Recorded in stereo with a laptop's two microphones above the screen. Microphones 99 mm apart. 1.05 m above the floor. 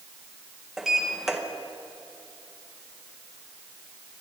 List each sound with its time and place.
0.8 s a sliding door: 5° right (ahead or behind), 1.1 m